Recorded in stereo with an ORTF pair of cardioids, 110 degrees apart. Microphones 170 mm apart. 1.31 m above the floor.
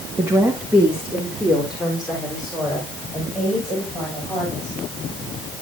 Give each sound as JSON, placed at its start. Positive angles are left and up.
{"t": 0.2, "sound": "a woman speaking", "azimuth_deg": -15, "distance_m": 1.5}